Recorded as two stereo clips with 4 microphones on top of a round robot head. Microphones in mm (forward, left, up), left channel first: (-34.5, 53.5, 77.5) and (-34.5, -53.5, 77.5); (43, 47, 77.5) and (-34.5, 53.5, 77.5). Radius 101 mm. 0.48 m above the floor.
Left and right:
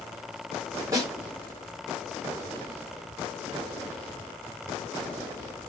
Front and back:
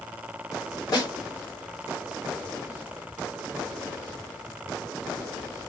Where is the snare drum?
35° right, 2.5 m.